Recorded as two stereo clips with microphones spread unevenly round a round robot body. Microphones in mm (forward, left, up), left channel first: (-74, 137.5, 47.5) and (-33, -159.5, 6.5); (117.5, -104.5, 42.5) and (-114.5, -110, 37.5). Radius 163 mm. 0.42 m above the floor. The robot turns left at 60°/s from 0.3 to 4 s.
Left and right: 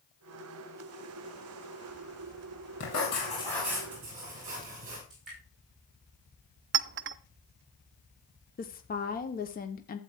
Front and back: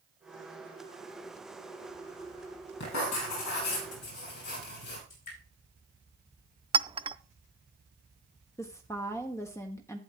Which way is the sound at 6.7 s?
115° right.